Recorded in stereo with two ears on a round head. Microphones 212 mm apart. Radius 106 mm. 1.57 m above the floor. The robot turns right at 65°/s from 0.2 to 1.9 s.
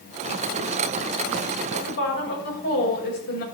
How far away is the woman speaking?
About 6.5 m.